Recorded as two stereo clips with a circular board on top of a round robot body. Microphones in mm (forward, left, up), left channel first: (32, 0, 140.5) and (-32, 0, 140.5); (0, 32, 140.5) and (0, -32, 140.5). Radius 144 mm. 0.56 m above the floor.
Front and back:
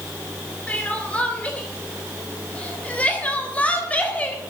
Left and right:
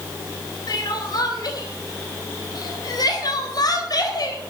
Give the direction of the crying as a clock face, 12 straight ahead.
10 o'clock.